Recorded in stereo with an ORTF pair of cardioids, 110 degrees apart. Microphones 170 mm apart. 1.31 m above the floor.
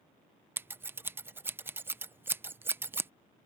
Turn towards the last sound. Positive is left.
turn(degrees=-15)